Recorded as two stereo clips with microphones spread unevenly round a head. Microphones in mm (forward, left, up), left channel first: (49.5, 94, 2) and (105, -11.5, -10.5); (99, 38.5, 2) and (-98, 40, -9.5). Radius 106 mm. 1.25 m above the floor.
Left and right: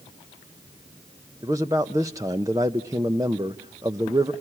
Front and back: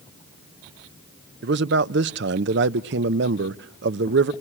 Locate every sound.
1.4 s a man speaking: 140° right, 0.5 m